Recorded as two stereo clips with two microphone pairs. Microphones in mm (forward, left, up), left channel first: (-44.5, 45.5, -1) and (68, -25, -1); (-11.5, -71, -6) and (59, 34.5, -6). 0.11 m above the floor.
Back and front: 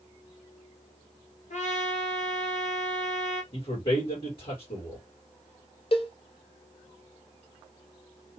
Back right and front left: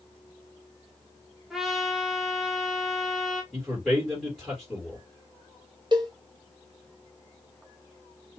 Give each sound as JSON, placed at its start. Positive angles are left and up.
{"t": 1.5, "sound": "a trumpet", "azimuth_deg": 145, "distance_m": 1.2}
{"t": 3.5, "sound": "a man speaking", "azimuth_deg": 130, "distance_m": 2.5}
{"t": 5.9, "sound": "a cowbell", "azimuth_deg": 105, "distance_m": 0.7}